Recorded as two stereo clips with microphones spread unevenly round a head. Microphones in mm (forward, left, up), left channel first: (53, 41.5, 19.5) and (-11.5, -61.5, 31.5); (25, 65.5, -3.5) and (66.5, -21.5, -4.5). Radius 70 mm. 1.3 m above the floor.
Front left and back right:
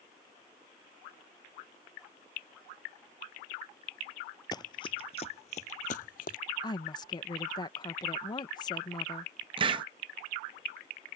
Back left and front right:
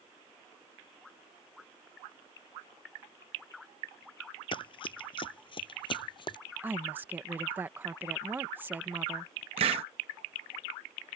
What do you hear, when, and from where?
4.5 s running footsteps: 120° left; by 6.4 s 90° left
6.6 s a woman speaking: 5° left
9.6 s a hiss: 80° right